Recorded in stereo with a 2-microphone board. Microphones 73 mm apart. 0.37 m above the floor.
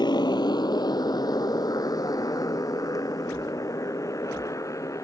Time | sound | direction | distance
0.0 | a motorcycle | 85° left | ?